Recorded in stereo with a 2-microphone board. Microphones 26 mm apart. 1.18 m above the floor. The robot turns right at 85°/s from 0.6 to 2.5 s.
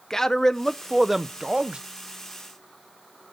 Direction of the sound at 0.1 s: 150° left.